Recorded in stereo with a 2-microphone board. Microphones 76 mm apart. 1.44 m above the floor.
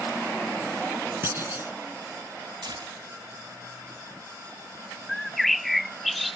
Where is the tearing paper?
85° right.